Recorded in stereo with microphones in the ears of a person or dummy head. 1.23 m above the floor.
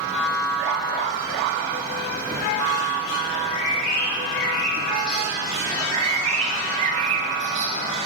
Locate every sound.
3.3 s a bird: 50° left (ahead or behind), 2.5 m
5.7 s a bird: 30° right (ahead or behind), 0.7 m